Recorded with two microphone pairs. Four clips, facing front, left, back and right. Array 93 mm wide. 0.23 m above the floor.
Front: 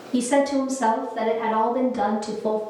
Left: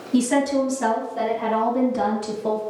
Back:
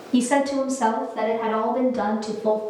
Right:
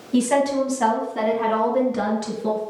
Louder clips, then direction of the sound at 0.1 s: Even, even; 165° right.